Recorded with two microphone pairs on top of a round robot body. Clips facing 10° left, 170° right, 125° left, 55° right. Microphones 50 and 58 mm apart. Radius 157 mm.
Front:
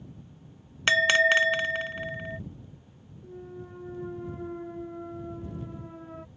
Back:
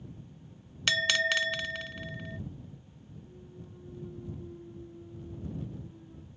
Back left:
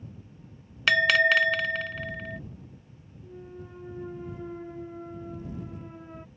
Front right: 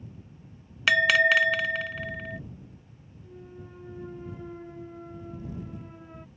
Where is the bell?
25° left.